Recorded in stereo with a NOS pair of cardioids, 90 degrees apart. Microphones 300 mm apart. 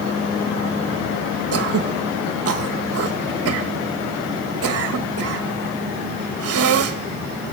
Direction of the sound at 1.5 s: 50° right.